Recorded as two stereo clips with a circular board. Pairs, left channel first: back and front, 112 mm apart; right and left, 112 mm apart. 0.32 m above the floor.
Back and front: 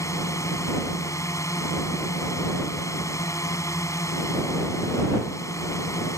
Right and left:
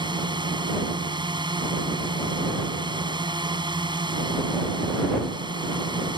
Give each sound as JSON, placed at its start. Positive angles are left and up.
{"t": 0.0, "sound": "a drone", "azimuth_deg": 125}